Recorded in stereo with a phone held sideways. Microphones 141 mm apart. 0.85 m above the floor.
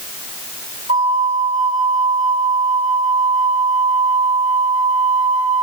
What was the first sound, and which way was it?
A flute, 55° right (ahead or behind).